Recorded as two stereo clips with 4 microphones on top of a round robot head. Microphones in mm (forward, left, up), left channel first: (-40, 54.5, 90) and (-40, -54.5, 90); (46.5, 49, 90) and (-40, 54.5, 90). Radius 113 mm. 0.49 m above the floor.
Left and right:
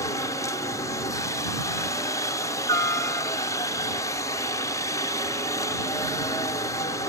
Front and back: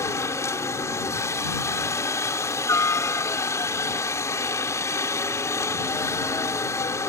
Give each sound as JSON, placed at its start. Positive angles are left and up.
{"t": 0.0, "sound": "a helicopter", "azimuth_deg": 40}